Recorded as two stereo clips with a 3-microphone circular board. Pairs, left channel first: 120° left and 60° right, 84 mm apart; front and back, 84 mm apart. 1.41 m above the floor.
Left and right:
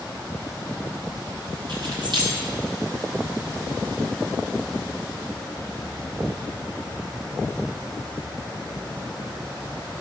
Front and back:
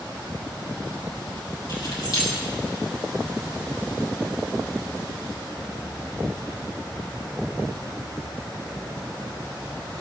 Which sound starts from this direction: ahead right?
Keys jangling, at 1.7 s.